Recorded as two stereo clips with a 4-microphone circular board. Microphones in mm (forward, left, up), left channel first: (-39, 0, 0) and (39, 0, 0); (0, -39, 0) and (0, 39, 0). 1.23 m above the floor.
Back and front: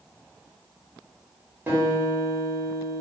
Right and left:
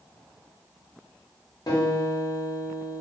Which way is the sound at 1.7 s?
55° right.